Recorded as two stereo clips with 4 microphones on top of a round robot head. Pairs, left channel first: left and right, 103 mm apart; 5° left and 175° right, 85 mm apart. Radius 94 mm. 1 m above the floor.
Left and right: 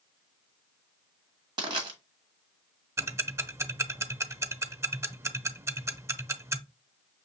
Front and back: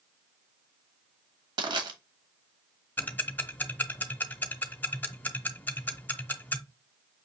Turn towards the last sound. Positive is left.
turn(degrees=-50)